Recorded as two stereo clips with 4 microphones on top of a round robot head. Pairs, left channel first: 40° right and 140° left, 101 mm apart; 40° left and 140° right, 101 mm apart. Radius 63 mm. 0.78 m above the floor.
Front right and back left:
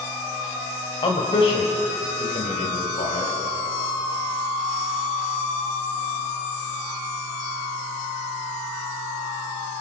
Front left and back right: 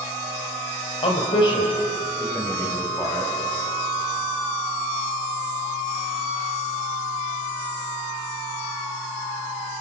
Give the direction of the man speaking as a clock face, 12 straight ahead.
12 o'clock.